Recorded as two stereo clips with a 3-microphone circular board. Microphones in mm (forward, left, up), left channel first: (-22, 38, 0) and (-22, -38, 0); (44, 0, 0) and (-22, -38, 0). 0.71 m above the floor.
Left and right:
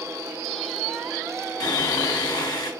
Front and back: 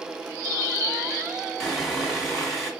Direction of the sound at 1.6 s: 120° left.